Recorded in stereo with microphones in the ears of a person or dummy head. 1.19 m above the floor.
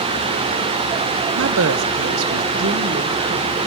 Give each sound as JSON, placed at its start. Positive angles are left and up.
{"t": 1.4, "sound": "a woman speaking", "side_deg": -60, "distance_m": 0.6}